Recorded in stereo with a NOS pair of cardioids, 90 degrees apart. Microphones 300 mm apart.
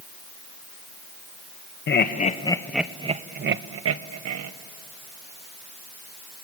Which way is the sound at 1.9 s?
40° left.